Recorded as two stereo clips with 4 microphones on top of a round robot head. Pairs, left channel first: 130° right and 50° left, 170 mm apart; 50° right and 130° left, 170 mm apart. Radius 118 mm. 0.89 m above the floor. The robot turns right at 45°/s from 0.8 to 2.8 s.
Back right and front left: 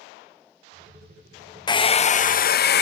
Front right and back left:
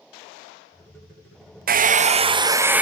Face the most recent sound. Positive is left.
turn(degrees=-145)